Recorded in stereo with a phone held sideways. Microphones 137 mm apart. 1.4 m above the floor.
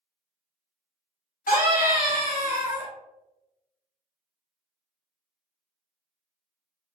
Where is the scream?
85° left, 1.9 m; by 2.9 s 75° left (ahead or behind), 0.9 m.